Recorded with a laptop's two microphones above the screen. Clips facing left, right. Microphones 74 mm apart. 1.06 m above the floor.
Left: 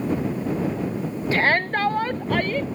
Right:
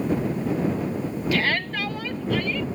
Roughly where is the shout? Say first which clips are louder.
Left 5 dB; left.